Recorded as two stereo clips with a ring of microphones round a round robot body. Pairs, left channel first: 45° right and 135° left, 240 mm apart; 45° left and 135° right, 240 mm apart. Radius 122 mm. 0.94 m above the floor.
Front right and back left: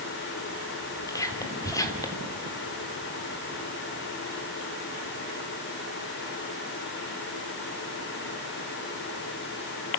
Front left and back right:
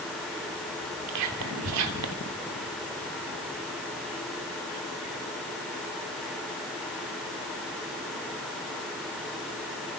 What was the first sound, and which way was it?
Whispering, 120° right.